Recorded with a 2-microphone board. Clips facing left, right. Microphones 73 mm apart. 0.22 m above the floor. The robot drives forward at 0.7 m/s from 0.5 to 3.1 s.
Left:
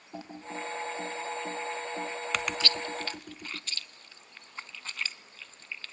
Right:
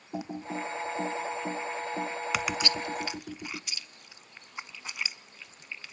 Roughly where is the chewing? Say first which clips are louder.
Right 2 dB; centre.